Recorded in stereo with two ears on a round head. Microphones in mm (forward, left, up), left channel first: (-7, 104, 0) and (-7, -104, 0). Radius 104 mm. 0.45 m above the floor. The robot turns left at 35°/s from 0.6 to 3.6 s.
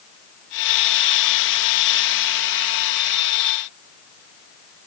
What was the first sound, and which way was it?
Only background noise.